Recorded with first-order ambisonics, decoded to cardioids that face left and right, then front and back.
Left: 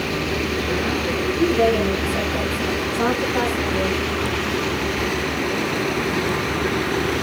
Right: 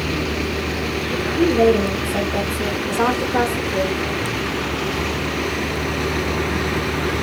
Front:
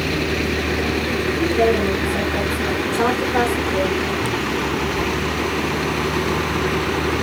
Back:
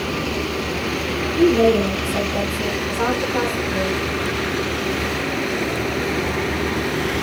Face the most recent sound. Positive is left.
turn(degrees=-50)